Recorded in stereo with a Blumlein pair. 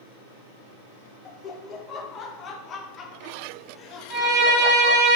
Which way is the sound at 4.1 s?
25° right.